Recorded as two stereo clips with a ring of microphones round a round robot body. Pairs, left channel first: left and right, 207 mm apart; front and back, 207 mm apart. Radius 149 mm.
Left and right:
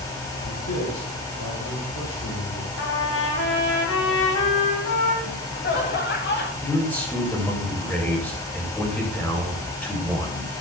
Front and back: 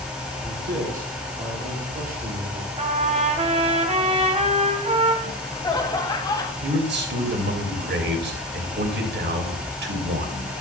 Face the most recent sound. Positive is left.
turn(degrees=175)